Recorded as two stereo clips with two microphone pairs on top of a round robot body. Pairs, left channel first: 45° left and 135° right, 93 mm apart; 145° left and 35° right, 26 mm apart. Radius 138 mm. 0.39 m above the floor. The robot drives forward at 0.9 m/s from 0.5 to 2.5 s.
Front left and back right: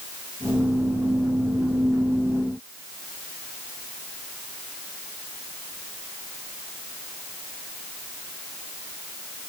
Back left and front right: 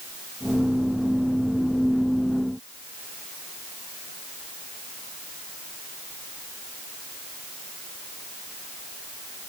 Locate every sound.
Only background noise.